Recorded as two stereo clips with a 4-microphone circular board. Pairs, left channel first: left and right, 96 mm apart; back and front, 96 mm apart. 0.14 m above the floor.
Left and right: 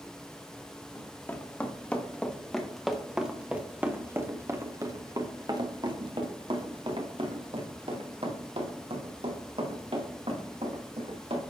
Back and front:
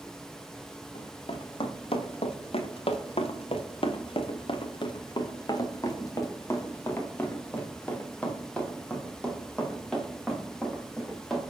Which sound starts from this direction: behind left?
Running footsteps, at 0.9 s.